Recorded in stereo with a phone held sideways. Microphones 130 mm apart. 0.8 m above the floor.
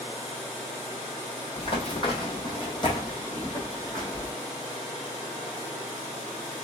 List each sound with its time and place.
1.6 s running footsteps: 45° left (ahead or behind), 1.4 m; by 4.3 s 30° left (ahead or behind), 2.5 m